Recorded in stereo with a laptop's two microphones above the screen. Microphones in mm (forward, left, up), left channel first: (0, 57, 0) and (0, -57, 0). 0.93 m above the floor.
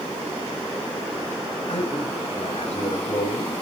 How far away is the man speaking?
About 6 m.